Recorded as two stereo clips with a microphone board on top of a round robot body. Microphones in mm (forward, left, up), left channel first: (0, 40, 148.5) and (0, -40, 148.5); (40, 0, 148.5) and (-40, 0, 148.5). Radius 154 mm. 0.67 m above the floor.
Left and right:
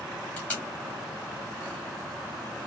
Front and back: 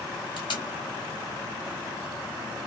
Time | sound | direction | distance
0.4 | tape being pulled | 25° left | 1.1 m